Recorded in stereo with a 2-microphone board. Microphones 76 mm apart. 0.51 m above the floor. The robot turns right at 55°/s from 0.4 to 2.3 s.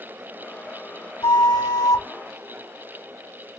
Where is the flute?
80° left, 1.8 m; by 2.0 s 125° left, 1.8 m.